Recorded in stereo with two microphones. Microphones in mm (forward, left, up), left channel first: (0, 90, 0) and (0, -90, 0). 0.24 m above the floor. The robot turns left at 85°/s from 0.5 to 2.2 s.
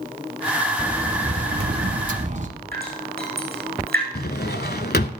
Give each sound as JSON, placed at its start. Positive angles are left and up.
{"t": 0.8, "sound": "a sliding door", "azimuth_deg": -5, "distance_m": 0.8}
{"t": 2.7, "sound": "dripping", "side_deg": -65, "distance_m": 7.0}
{"t": 4.2, "sound": "a drawer", "side_deg": 70, "distance_m": 0.7}